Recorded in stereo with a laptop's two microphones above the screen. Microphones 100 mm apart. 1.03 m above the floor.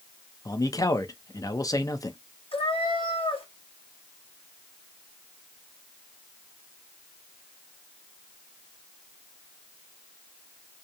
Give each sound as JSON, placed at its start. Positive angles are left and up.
{"t": 0.5, "sound": "a man speaking", "side_deg": 35, "distance_m": 0.6}
{"t": 2.5, "sound": "a cat meowing", "side_deg": 65, "distance_m": 1.0}